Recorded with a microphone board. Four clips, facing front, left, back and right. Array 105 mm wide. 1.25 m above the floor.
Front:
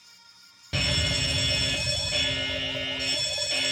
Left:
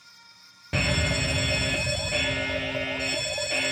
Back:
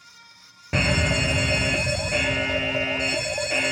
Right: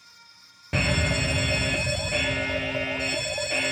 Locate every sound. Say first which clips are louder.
0.7 s a fire alarm: right 1 dB, back 8 dB; 170° right